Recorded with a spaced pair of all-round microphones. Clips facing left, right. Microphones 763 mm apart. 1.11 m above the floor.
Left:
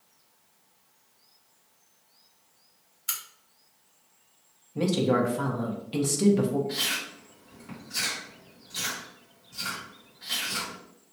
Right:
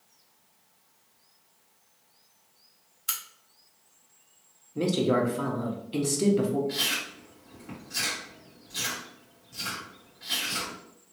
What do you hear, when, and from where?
3.1 s a crack: 15° right (ahead or behind), 0.7 m
4.8 s a woman speaking: 30° left (ahead or behind), 0.7 m
6.7 s chewing: 5° left (ahead or behind), 1.6 m